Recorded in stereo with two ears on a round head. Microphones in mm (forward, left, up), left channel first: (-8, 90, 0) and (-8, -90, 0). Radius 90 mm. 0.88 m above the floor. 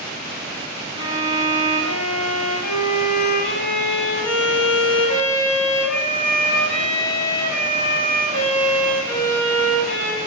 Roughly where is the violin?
Left.